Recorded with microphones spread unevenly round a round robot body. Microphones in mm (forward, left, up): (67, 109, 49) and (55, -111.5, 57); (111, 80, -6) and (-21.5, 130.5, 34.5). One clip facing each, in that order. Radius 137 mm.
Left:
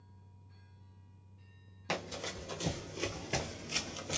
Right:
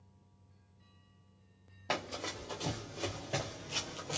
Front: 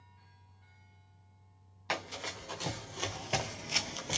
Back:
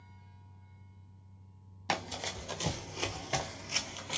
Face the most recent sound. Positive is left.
turn(degrees=25)